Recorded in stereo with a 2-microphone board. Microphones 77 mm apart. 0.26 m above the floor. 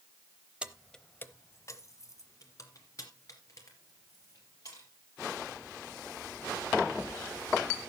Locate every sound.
0.6 s keys jangling: 15° right (ahead or behind), 0.8 m; by 4.9 s 50° left (ahead or behind), 4.5 m